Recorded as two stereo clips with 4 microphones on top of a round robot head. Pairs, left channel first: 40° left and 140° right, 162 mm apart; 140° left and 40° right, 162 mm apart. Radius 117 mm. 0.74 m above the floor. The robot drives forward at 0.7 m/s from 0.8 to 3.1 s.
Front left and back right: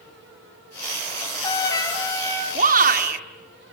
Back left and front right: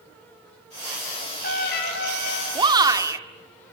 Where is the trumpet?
105° left, 3.5 m; by 2.5 s 115° left, 4 m.